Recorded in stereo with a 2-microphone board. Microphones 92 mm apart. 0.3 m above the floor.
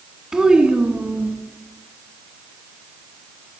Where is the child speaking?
5° right (ahead or behind), 1.4 m; by 1.3 s 20° right (ahead or behind), 1.9 m.